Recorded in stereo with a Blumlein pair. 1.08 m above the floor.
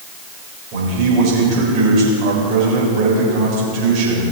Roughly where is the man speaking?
Ahead right.